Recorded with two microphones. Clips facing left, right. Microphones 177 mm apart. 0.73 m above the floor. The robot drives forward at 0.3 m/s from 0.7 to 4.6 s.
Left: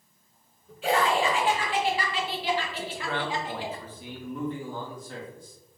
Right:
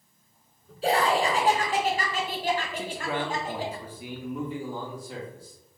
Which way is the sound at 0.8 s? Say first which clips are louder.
Right 1 dB; 35° right (ahead or behind).